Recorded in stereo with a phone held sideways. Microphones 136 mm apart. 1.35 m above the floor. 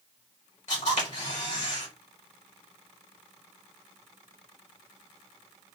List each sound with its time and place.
0.7 s a camera shutter: 65° left (ahead or behind), 1.8 m